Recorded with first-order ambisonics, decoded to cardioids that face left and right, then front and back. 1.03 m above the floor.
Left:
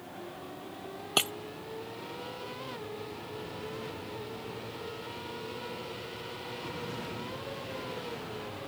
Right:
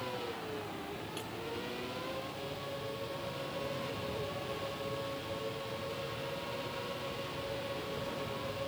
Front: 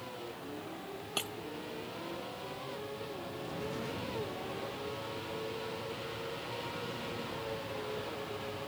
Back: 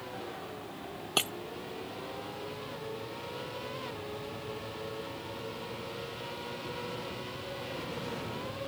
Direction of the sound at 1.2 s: 115° left.